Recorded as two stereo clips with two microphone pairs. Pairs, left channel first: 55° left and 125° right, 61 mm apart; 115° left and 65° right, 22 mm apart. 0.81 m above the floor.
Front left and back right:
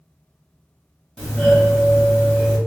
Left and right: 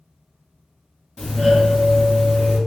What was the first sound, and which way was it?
A doorbell, 165° left.